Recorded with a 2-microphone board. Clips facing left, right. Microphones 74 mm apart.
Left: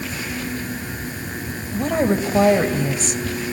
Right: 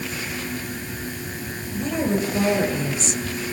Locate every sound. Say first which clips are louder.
1.7 s a woman speaking: left 4 dB; 60° left (ahead or behind), 2.5 m